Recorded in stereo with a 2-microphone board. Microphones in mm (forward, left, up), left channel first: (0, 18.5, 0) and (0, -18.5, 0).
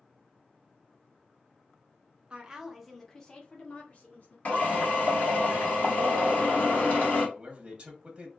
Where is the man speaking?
20° right (ahead or behind), 0.8 m.